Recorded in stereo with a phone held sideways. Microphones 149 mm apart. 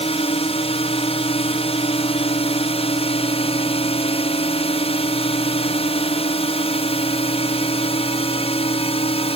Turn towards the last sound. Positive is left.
turn(degrees=40)  # may be behind; listen again after turning